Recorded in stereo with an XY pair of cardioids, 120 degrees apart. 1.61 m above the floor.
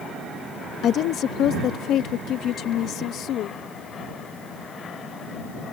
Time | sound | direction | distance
0.8 | a woman speaking | 65° left | ?